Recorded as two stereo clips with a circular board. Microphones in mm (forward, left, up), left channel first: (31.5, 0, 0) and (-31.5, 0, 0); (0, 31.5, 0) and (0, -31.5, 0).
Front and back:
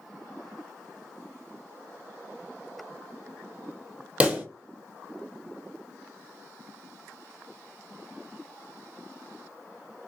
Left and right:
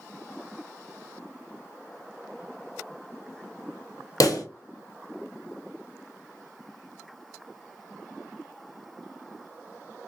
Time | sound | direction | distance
4.2 | a pop | 110° left | 0.7 m